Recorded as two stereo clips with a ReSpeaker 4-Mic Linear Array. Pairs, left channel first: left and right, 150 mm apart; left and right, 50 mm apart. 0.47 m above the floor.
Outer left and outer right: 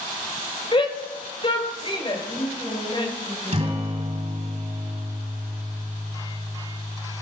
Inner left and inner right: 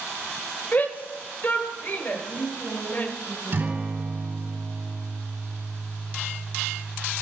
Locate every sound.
0.7 s a shout: 35° left (ahead or behind), 2 m
2.1 s a woman speaking: 20° left (ahead or behind), 5 m
3.5 s a guitar: 45° right (ahead or behind), 3 m